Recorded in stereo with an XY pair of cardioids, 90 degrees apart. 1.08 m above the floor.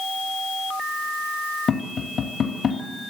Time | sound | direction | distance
1.7 | tapping | 55° left | 2.5 m